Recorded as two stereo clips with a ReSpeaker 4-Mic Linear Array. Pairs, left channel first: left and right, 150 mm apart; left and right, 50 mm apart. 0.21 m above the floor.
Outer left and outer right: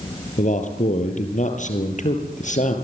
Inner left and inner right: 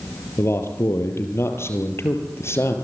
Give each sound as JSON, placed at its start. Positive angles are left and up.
{"t": 0.4, "sound": "a man speaking", "side_deg": 60, "distance_m": 4.0}